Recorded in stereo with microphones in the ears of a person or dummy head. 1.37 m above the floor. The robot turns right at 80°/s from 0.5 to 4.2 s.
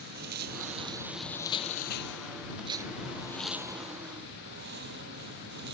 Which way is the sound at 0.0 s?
55° right.